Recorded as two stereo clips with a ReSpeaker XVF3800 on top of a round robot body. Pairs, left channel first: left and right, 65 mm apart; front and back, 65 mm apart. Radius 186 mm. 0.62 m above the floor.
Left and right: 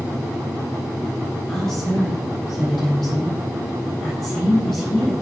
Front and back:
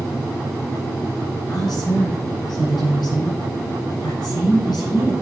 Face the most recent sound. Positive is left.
turn(degrees=5)